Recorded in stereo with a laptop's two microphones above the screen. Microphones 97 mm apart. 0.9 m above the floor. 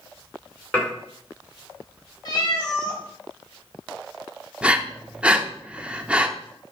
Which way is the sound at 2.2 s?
45° left (ahead or behind).